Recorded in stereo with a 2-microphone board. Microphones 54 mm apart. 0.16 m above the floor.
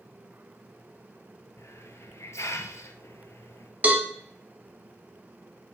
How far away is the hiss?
About 0.7 m.